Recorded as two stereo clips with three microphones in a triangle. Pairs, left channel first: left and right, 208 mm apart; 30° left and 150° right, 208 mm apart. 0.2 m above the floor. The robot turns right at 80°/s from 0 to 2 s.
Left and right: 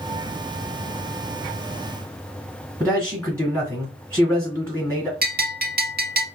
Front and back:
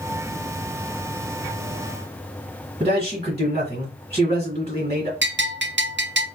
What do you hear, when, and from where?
2.8 s a man speaking: 165° left, 1.7 m
5.2 s a bell: 130° right, 0.7 m